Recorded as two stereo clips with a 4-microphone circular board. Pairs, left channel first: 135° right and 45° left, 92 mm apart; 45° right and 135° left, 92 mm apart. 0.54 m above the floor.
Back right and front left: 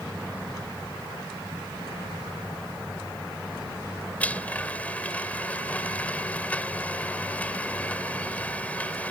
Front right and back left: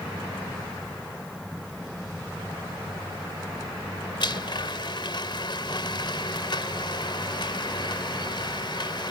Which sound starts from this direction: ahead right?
A blender, at 4.2 s.